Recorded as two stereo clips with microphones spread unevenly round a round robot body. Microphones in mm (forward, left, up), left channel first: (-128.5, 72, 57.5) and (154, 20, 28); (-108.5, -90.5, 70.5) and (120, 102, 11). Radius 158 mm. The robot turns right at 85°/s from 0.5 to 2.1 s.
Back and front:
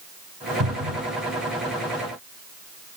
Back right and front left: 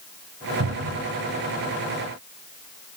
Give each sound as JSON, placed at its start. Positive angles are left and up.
{"t": 0.6, "sound": "a cupboard door", "azimuth_deg": 30, "distance_m": 3.0}